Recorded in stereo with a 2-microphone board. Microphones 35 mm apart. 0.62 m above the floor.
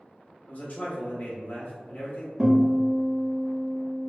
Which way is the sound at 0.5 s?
50° left (ahead or behind).